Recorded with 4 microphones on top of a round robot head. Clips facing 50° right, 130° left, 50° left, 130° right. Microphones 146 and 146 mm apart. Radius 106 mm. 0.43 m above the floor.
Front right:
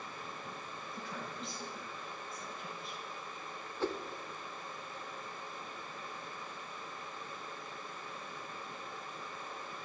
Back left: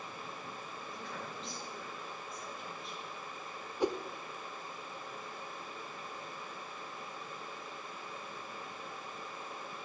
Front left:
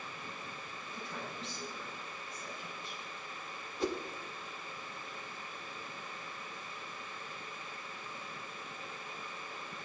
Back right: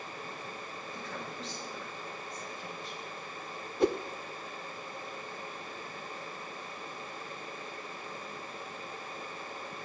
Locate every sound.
0.9 s a woman speaking: 140° right, 6.5 m
3.8 s a whoosh: 155° right, 0.5 m